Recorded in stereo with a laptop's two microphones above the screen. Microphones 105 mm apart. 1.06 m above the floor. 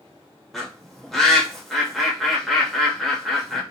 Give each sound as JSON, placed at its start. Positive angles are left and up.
{"t": 0.5, "sound": "a bird", "side_deg": 0, "distance_m": 0.6}